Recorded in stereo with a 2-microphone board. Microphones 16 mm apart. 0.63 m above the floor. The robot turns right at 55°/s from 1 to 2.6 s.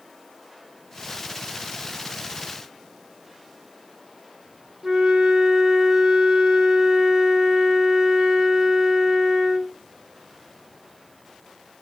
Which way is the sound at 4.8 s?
40° right (ahead or behind).